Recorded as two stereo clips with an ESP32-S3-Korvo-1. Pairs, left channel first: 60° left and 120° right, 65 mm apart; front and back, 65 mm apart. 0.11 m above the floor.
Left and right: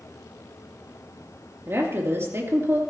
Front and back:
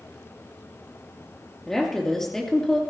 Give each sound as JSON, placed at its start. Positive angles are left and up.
{"t": 1.7, "sound": "a woman speaking", "azimuth_deg": -80, "distance_m": 3.0}